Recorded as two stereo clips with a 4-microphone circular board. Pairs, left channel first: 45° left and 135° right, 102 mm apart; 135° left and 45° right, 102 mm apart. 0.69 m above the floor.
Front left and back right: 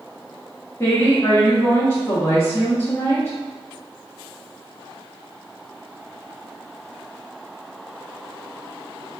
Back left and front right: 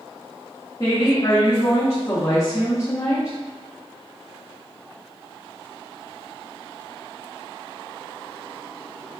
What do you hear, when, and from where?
0.8 s a woman speaking: 95° left, 0.8 m